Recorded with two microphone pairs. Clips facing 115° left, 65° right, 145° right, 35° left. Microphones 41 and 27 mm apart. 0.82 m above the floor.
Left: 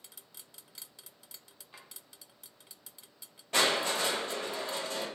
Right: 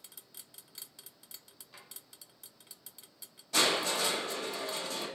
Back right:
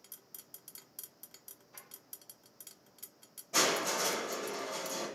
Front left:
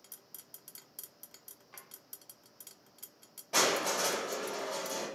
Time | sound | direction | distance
1.7 | a drawer | 45° left | 0.7 m
3.5 | crushing | 70° left | 1.2 m